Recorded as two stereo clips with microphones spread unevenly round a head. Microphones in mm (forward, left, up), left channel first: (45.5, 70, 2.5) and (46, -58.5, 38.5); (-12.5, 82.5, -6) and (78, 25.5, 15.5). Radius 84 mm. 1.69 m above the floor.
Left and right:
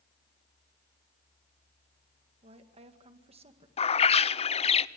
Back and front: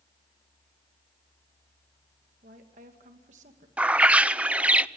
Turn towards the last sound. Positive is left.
turn(degrees=45)